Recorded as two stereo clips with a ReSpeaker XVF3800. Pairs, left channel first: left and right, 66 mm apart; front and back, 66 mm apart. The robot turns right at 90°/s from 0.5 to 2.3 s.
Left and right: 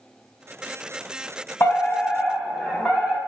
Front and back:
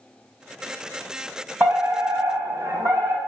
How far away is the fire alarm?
About 4 m.